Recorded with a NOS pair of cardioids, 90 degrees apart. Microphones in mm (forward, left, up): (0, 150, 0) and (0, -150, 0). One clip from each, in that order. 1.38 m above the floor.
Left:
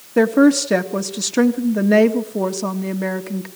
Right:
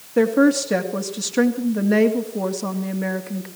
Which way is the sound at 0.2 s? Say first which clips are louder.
Left 3 dB; 25° left.